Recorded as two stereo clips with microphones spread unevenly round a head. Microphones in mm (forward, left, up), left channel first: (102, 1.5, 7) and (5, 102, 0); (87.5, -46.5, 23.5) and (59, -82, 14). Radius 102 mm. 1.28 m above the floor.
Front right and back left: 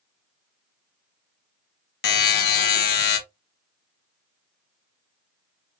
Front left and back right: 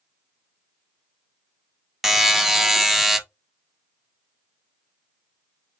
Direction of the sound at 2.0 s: 45° right.